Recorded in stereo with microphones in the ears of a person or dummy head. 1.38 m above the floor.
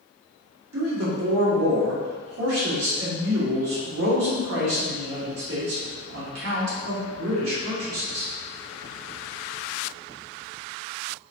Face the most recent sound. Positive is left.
turn(degrees=-80)